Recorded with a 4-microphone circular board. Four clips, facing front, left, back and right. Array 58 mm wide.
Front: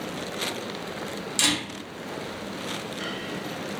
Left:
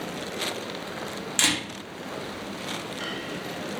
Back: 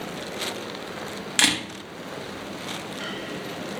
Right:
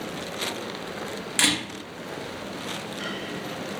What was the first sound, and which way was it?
A camera shutter, 160° right.